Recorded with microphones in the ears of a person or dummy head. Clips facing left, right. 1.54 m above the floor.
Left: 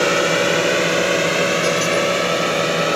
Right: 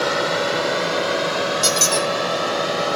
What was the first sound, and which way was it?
A drone, 45° left (ahead or behind).